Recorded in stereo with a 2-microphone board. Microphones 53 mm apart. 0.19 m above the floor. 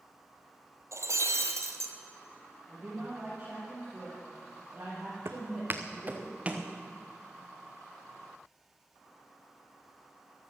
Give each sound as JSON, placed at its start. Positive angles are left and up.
{"t": 0.9, "sound": "breaking glass", "side_deg": -80, "distance_m": 1.5}
{"t": 2.7, "sound": "a woman speaking", "side_deg": -35, "distance_m": 5.5}
{"t": 5.2, "sound": "footsteps", "side_deg": -65, "distance_m": 1.1}